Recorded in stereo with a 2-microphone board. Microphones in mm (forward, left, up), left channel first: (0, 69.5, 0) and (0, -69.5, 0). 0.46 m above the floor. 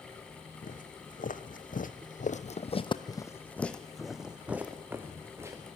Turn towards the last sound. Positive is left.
turn(degrees=-20)  # may be behind; listen again after turning